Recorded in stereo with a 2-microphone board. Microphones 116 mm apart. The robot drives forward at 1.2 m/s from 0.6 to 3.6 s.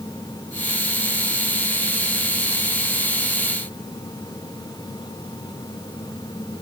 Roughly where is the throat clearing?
No throat clearing in this recording.